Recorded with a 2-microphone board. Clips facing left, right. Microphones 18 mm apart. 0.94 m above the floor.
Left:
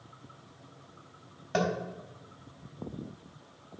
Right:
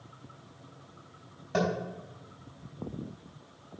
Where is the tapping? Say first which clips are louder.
Even; 15° left (ahead or behind), 3 m.